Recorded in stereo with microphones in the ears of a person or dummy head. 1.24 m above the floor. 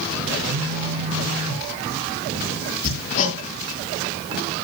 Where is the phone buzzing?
75° right (ahead or behind), 4 m.